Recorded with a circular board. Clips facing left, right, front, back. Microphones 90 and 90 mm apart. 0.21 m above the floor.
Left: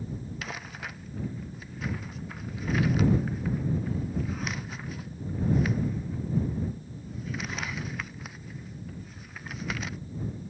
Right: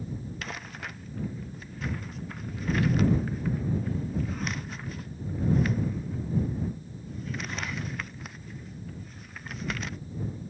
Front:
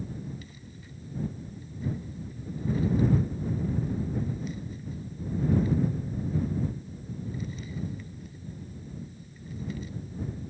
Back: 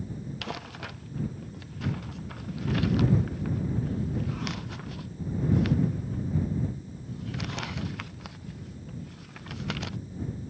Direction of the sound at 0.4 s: Straight behind.